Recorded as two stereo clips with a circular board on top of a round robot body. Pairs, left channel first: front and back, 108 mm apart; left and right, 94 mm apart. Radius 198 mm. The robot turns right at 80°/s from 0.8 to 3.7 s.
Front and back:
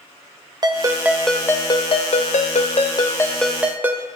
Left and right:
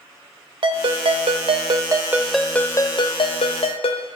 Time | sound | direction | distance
0.6 | a ringtone | 125° right | 1.0 m